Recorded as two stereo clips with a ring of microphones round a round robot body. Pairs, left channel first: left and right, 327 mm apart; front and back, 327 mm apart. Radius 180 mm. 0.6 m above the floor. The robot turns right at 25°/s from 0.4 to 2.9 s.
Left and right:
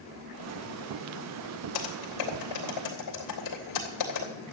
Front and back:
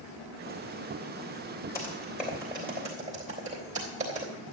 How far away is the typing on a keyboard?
About 3 m.